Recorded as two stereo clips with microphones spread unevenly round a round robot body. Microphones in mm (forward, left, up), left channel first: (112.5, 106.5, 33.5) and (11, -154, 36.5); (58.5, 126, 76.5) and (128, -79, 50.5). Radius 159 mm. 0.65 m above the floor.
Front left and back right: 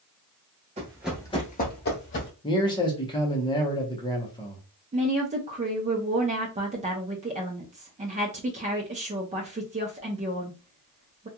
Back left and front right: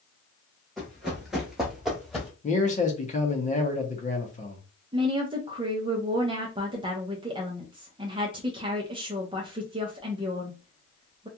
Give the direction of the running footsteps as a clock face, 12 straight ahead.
6 o'clock.